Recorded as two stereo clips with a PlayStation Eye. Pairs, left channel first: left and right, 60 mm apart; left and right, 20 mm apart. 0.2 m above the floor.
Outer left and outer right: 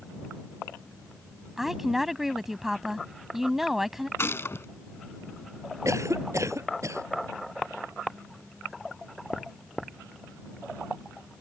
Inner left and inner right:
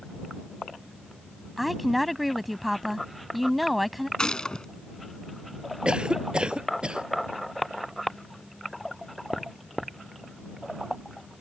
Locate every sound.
1.6 s a woman speaking: 5° right (ahead or behind)
4.2 s a gunshot: 45° left (ahead or behind)
5.8 s a cough: 60° right (ahead or behind)